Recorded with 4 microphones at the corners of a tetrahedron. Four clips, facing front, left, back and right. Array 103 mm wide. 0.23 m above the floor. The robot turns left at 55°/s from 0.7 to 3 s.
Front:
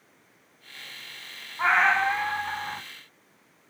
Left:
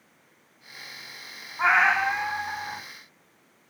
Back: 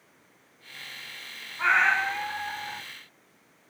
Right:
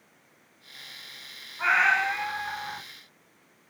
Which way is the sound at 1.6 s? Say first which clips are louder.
Left 2 dB, front 1 dB; 55° left.